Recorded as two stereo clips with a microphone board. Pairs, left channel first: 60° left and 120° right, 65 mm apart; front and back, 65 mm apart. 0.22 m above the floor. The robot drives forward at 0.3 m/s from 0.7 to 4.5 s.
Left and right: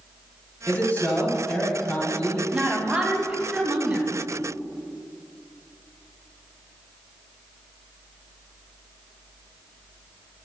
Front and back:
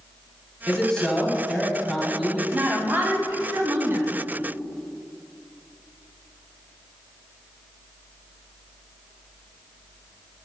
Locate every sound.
0.7 s a man speaking: 65° left, 1.7 m; by 2.4 s 105° left, 1.7 m
2.5 s a woman speaking: 170° right, 1.2 m; by 4.1 s 175° right, 1.5 m